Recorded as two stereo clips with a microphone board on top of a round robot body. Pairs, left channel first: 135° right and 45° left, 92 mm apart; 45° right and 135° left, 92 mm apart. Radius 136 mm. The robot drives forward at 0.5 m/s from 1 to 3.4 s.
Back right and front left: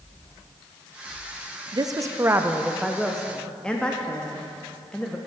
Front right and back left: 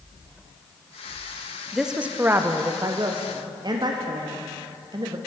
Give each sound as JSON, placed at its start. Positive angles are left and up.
{"t": 1.7, "sound": "a woman speaking", "azimuth_deg": 50, "distance_m": 0.7}